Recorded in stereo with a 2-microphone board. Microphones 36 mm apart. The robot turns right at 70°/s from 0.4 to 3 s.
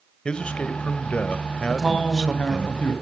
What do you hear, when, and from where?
0.2 s a man speaking: 50° left, 1.5 m; by 2.7 s 150° right, 1.5 m
1.7 s a man speaking: straight ahead, 1.9 m; by 2.9 s 90° left, 1.9 m